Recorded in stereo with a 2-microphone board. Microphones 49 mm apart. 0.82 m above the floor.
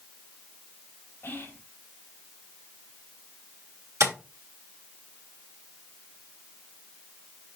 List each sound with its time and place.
1.2 s whispering: 40° left (ahead or behind), 3.5 m
4.0 s tapping: 85° right, 2 m